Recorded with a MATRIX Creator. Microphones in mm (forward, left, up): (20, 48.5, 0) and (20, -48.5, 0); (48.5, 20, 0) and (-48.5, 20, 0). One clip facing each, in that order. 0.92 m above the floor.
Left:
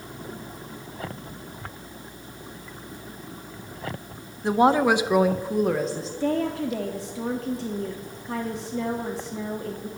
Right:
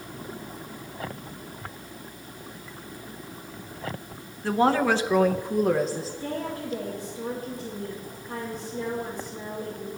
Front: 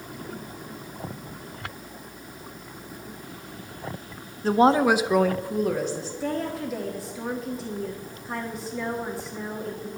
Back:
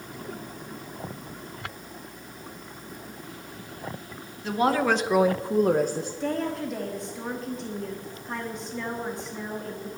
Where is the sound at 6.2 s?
85° left, 1.3 m.